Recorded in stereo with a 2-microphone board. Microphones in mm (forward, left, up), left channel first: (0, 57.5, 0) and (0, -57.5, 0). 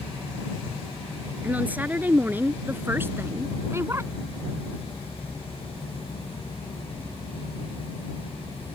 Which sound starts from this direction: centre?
A woman speaking, at 1.4 s.